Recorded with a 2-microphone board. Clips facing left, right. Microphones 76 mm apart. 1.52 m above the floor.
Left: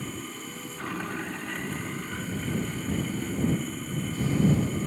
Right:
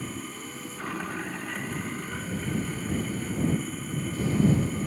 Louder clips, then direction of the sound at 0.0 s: Even; centre (ahead or behind).